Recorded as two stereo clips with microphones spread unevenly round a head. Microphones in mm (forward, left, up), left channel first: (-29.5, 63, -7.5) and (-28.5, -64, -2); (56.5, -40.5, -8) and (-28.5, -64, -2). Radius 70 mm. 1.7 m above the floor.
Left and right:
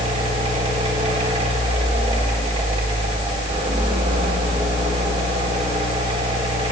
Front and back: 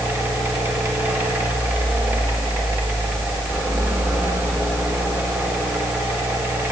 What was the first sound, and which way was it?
A fan, 105° right.